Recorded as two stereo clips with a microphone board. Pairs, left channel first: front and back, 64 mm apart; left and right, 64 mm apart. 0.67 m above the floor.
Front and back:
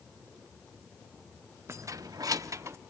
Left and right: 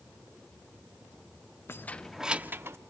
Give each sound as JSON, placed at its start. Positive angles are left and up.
{"t": 1.7, "sound": "keys jangling", "azimuth_deg": 140, "distance_m": 0.5}